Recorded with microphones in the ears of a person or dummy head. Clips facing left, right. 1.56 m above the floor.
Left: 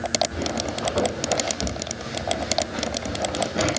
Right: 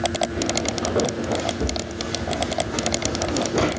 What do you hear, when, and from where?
0.3 s footsteps: 30° right (ahead or behind), 5 m; by 3.7 s 70° right (ahead or behind), 5 m